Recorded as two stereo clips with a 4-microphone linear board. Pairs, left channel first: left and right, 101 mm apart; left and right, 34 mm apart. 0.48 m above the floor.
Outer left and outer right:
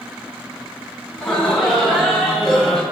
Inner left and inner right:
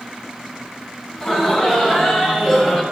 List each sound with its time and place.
1.1 s laughter: 5° left (ahead or behind), 3.5 m